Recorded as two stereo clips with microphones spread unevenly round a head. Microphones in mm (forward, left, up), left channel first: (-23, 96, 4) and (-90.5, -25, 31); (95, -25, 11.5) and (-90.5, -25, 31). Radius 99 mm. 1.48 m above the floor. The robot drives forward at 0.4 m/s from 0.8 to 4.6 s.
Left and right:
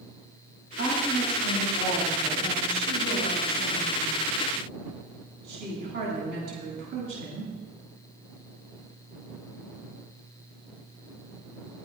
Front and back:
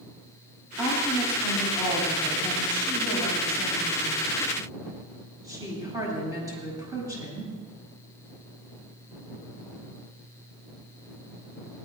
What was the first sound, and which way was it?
A woman speaking, 95° right.